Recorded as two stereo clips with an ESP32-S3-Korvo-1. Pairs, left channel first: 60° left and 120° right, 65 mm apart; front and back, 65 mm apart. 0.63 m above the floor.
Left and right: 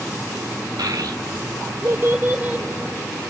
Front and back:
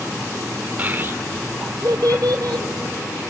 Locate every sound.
0.8 s a child speaking: 115° right, 1.5 m; by 3.2 s 160° left, 2 m